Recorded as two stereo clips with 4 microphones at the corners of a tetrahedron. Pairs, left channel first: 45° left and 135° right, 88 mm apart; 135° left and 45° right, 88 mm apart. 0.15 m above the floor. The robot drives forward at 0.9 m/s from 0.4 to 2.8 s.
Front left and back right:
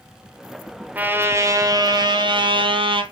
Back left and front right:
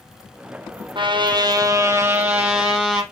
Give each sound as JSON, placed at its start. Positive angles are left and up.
{"t": 0.9, "sound": "a trumpet", "azimuth_deg": -65, "distance_m": 1.4}